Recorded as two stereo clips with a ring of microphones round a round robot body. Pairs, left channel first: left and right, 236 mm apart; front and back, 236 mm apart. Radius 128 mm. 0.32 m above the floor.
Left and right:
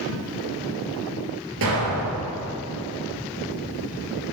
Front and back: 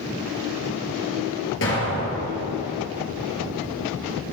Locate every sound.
1.6 s an explosion: 45° right, 1.7 m